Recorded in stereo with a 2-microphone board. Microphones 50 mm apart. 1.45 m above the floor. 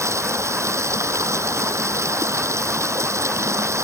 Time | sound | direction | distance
0.0 | running water | 80° right | ?